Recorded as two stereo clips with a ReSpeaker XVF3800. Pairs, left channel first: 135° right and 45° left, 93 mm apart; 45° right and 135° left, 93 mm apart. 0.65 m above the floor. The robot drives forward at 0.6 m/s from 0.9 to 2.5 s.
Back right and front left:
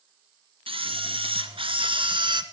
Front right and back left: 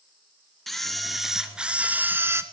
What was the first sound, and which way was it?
A camera shutter, 45° left.